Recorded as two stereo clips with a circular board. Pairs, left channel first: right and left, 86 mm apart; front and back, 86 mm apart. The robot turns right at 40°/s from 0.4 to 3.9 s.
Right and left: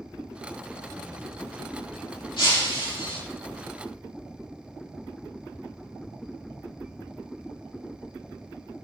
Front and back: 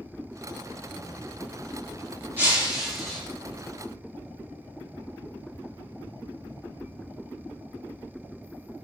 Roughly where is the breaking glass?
Behind right.